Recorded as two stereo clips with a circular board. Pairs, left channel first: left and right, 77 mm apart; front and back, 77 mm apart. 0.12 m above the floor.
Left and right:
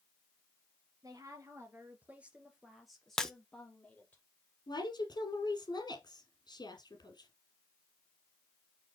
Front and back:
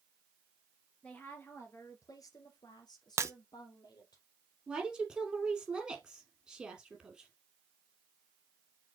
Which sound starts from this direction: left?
A woman speaking, at 4.7 s.